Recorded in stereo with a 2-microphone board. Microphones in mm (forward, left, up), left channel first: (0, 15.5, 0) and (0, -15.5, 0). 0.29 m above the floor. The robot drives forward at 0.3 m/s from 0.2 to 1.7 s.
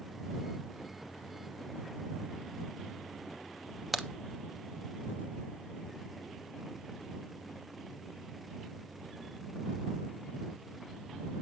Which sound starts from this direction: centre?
A crack, at 3.9 s.